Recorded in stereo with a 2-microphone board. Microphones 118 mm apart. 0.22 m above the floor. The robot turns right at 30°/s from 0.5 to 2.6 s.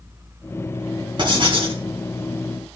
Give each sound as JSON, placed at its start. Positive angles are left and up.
{"t": 1.2, "sound": "writing", "side_deg": -45, "distance_m": 2.5}